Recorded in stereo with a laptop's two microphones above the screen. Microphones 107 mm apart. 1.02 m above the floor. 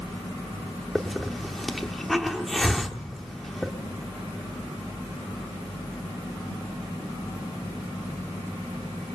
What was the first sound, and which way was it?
A hiss, centre (ahead or behind).